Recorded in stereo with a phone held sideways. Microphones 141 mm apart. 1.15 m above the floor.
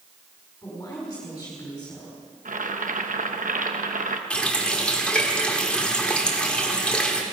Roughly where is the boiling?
Right.